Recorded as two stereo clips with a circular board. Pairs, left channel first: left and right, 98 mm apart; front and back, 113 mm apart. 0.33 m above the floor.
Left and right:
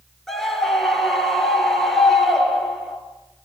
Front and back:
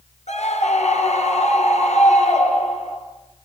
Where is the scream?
5° left, 6 m.